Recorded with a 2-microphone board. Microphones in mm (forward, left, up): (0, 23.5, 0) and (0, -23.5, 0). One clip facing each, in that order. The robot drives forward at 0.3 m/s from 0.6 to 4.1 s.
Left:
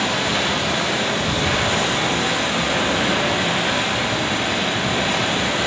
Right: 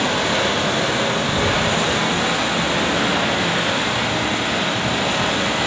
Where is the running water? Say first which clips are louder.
Right 2 dB; 40° right (ahead or behind), 0.9 m; by 5.7 s 20° right (ahead or behind), 1.8 m.